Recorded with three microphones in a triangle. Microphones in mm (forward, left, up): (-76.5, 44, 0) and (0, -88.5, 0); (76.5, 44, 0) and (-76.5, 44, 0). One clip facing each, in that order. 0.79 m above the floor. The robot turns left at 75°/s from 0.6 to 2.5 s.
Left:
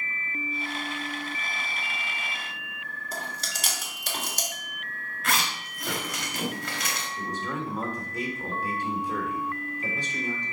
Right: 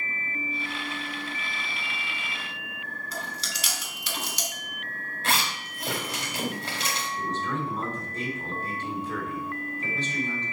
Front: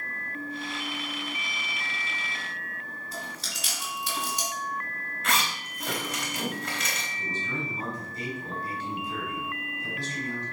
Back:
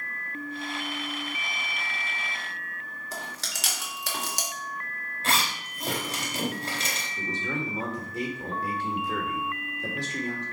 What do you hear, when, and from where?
3.1 s chewing: 165° left, 2 m
5.2 s a zipper: 120° right, 3 m
7.2 s a man speaking: 165° right, 3 m